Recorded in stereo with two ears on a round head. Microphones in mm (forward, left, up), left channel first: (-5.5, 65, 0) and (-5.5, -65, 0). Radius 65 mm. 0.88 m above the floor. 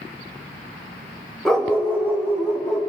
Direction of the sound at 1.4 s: 5° left (ahead or behind).